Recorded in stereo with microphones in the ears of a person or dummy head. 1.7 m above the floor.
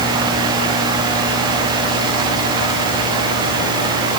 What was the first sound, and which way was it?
Only background noise.